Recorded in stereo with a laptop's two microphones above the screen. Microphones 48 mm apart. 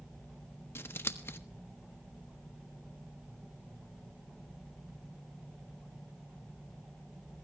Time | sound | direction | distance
0.8 | scissors | 60° left (ahead or behind) | 1.2 m